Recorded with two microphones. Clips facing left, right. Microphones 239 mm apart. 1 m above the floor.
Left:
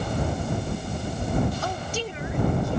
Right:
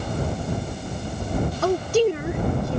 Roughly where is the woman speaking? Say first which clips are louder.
Right 12 dB; right.